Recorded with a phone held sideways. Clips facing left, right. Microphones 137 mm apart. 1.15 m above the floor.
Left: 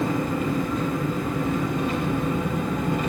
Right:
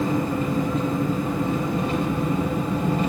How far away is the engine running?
About 3 m.